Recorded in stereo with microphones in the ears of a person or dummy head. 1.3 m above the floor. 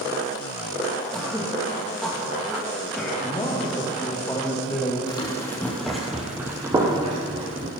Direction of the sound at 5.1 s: 25° left (ahead or behind).